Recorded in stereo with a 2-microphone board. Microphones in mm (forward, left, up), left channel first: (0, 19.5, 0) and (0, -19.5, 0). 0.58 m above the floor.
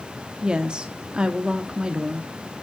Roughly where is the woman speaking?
Right.